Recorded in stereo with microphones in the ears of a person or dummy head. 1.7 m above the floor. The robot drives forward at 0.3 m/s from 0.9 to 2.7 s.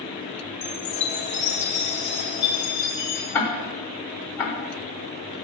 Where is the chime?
35° left (ahead or behind), 0.9 m; by 3.2 s 25° left (ahead or behind), 1.3 m.